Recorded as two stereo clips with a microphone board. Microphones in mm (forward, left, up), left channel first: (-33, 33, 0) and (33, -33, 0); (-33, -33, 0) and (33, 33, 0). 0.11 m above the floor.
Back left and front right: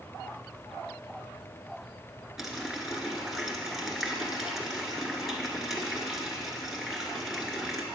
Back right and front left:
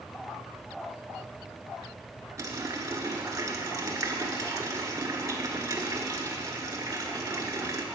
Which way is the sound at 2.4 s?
35° left.